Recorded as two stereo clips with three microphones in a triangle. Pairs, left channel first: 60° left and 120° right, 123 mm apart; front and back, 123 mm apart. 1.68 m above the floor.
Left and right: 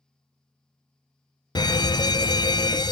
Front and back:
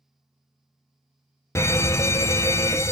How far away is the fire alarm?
About 0.5 m.